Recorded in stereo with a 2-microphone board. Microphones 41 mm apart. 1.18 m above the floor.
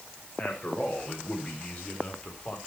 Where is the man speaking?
35° left (ahead or behind), 6 m.